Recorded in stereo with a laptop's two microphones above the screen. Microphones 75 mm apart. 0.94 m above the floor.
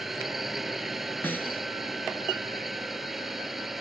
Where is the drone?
5° right (ahead or behind).